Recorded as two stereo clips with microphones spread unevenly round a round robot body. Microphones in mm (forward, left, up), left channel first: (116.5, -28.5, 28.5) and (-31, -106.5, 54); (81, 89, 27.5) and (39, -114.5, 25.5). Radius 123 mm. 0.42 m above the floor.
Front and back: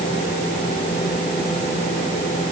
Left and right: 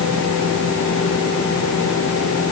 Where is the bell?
I don't hear a bell.